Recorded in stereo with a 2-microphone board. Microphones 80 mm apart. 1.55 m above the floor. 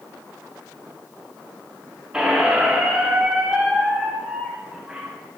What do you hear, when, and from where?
2.1 s a squeak: 10° right (ahead or behind), 0.5 m